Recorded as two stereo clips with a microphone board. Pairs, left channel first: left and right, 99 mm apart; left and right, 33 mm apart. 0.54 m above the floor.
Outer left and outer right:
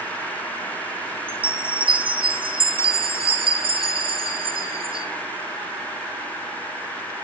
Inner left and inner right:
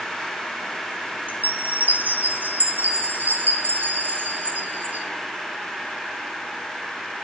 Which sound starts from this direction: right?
A chime, at 1.3 s.